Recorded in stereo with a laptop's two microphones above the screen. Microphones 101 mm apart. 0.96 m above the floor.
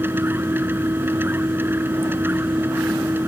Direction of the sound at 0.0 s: 20° right (ahead or behind).